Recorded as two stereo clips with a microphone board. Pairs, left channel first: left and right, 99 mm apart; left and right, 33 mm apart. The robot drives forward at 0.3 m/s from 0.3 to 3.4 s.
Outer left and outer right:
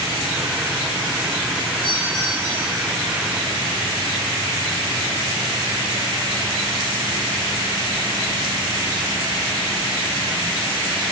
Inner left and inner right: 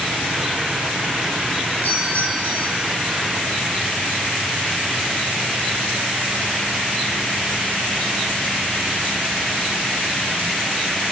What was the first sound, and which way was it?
A doorbell, 50° left (ahead or behind).